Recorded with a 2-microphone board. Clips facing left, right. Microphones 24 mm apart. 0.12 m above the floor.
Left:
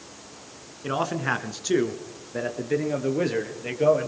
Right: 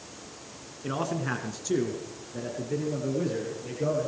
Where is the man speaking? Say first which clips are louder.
Left 4 dB; 20° left (ahead or behind), 1.1 m; by 4.1 s 55° left (ahead or behind), 2 m.